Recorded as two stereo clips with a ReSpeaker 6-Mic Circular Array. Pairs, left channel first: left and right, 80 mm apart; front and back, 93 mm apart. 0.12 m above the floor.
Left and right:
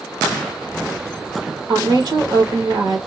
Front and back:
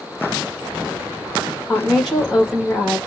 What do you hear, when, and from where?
1.7 s a woman speaking: 90° right, 2.5 m